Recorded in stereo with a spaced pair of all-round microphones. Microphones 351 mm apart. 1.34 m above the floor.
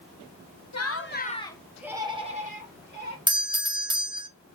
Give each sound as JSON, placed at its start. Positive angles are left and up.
{"t": 0.7, "sound": "laughter", "side_deg": 50, "distance_m": 0.9}
{"t": 3.3, "sound": "a doorbell", "side_deg": -15, "distance_m": 0.7}